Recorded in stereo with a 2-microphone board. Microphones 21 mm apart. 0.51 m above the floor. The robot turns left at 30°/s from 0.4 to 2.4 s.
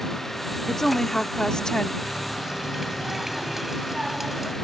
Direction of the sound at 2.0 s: 25° right (ahead or behind).